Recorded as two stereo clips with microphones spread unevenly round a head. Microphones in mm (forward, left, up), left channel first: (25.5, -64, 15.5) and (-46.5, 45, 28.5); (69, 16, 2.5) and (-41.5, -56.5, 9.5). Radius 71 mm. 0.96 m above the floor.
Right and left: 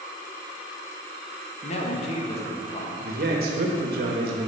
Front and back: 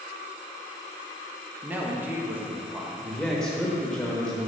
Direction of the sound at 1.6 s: 70° right.